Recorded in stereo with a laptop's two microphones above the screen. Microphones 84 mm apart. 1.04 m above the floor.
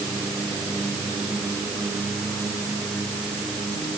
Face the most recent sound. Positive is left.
No sound to turn to.